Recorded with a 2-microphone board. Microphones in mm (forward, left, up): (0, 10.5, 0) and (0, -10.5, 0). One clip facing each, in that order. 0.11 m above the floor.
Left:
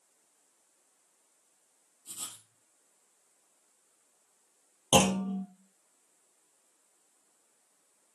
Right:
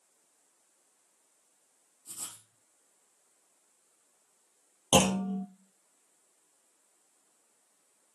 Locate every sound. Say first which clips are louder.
2.1 s writing: left 1 dB; 45° left (ahead or behind), 2.5 m
4.9 s a clunk: even; 10° left (ahead or behind), 1.5 m